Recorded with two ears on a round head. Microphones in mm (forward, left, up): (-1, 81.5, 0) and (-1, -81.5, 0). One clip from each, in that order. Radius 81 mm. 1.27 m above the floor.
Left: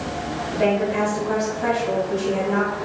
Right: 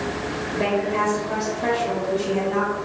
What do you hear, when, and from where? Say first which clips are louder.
0.5 s a woman speaking: left 2 dB; 30° left (ahead or behind), 4 m